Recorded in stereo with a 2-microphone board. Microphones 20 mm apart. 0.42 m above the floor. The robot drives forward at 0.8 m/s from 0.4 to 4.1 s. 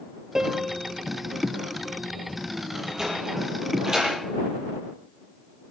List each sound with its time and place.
0.3 s a piano: 25° right (ahead or behind), 2.0 m; by 0.8 s 20° right (ahead or behind), 2.5 m
2.8 s a sliding door: 25° right (ahead or behind), 9 m; by 4.1 s 20° right (ahead or behind), 10 m